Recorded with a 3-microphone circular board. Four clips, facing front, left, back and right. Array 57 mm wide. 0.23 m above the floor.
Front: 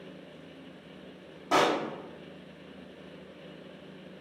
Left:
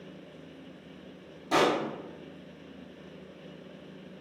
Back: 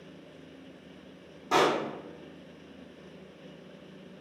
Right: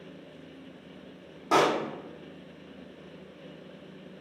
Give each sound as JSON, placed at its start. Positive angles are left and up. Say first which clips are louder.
{"t": 1.5, "sound": "a pop", "louder": "right 2 dB, even", "azimuth_deg": -70, "distance_m": 1.5}